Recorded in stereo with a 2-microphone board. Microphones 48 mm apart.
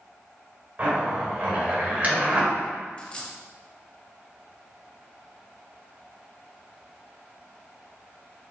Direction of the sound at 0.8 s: 35° right (ahead or behind).